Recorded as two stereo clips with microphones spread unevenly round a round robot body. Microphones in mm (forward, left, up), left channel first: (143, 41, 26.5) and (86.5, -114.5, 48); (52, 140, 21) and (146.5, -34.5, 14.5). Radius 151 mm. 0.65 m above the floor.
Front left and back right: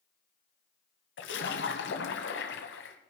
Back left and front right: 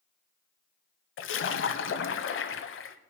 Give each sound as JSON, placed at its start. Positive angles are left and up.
{"t": 1.2, "sound": "a splash", "azimuth_deg": 105, "distance_m": 1.2}